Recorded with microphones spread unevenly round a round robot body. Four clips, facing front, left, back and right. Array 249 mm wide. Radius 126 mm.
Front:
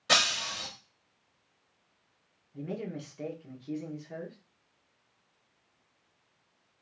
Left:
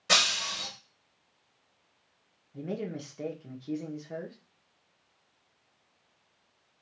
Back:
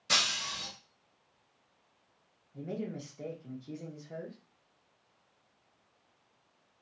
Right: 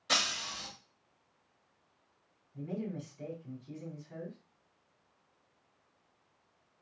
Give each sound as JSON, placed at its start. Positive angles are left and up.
{"t": 0.1, "sound": "breaking glass", "azimuth_deg": 40, "distance_m": 1.7}
{"t": 2.5, "sound": "a man speaking", "azimuth_deg": 75, "distance_m": 1.2}